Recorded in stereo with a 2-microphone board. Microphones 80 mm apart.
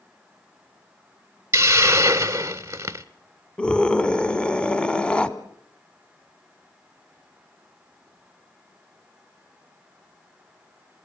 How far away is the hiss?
About 0.8 m.